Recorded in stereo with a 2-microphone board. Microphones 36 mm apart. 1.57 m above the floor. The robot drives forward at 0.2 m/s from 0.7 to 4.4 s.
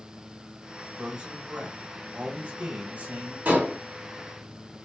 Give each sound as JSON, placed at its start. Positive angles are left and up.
{"t": 0.8, "sound": "a man speaking", "side_deg": -50, "distance_m": 1.6}
{"t": 3.5, "sound": "dishes clattering", "side_deg": -65, "distance_m": 1.6}